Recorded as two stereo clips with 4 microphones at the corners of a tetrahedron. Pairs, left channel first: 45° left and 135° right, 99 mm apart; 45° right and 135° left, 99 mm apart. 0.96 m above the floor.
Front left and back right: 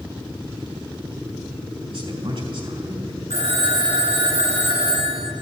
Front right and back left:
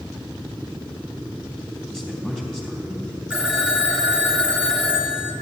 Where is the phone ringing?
140° right, 2 m.